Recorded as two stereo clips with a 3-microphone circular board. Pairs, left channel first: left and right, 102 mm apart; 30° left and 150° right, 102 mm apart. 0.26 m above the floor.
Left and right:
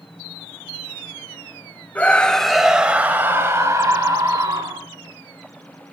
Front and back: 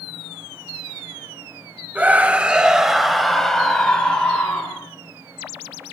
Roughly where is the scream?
Behind left.